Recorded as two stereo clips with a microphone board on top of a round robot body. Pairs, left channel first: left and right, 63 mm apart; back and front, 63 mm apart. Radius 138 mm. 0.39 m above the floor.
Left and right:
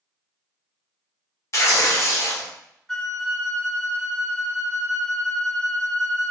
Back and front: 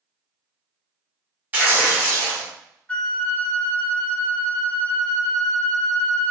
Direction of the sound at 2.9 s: 155° left.